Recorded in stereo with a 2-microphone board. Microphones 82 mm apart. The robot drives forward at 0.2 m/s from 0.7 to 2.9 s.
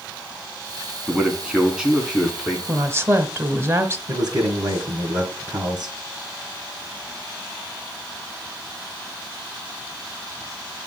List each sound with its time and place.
1.1 s a man speaking: 10° right (ahead or behind), 2.5 m
2.7 s a woman speaking: 30° right (ahead or behind), 1.3 m
4.1 s a man speaking: 50° right (ahead or behind), 2 m